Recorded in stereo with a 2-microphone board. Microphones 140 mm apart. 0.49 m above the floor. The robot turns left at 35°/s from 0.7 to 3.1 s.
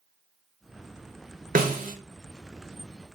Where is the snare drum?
85° right, 0.6 m; by 1.9 s 80° right, 0.6 m.